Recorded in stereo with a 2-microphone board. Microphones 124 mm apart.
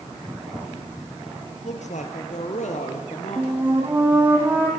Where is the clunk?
I don't hear a clunk.